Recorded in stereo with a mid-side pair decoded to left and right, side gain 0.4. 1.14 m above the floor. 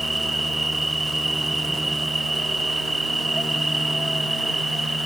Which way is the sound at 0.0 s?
20° right.